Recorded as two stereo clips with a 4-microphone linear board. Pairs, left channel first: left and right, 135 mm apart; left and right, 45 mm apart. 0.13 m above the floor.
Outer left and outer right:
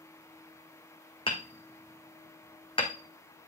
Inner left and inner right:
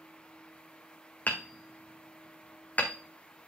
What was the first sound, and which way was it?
Hammering, 40° left (ahead or behind).